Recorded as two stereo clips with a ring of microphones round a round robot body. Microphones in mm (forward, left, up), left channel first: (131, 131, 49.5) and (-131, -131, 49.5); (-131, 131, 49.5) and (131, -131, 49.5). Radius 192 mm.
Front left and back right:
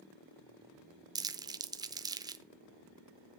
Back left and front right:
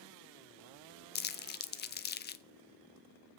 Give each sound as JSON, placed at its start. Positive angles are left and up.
{"t": 1.1, "sound": "crumpling", "azimuth_deg": 155, "distance_m": 0.5}